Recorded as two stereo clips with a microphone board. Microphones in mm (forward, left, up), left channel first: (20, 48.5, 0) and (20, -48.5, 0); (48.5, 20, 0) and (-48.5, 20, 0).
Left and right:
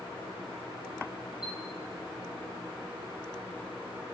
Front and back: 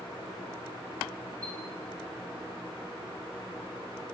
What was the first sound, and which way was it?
A chime, 80° right.